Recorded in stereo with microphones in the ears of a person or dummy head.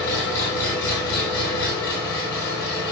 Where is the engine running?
15° left (ahead or behind), 2 m.